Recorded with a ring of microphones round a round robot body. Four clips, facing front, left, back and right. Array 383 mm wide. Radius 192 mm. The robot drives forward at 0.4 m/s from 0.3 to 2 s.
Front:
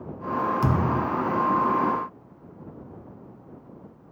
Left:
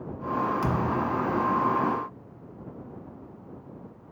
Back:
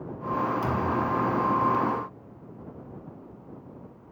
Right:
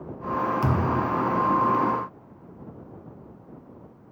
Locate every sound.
0.6 s a thud: 15° right, 1.6 m; by 1.1 s 20° right, 1.4 m